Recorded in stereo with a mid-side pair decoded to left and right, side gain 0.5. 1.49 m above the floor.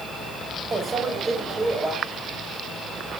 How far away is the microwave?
About 5.5 m.